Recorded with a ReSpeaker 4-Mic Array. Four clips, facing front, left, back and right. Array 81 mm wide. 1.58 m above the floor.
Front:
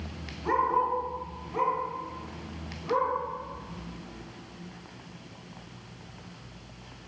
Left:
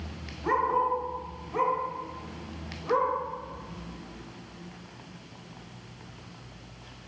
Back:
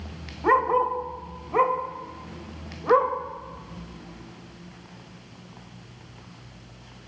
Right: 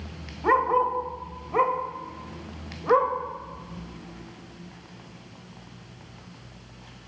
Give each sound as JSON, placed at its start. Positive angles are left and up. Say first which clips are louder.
{"t": 0.4, "sound": "a dog barking", "louder": "right 4 dB, back 5 dB", "azimuth_deg": -150, "distance_m": 2.0}